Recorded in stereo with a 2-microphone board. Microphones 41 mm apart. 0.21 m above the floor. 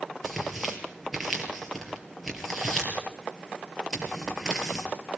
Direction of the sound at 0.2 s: Centre (ahead or behind).